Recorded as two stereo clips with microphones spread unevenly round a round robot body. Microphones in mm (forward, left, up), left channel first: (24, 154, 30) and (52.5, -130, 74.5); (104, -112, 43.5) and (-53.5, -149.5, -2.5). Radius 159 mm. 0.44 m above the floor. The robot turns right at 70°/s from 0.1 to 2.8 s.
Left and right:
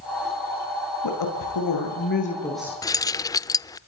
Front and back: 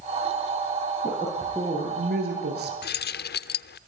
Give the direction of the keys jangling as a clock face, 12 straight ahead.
11 o'clock.